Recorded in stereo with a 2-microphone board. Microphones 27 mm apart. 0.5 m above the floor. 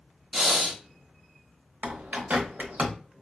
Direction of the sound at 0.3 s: 10° right (ahead or behind).